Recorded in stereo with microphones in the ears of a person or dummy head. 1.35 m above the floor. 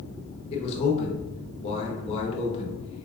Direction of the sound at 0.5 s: 35° left (ahead or behind).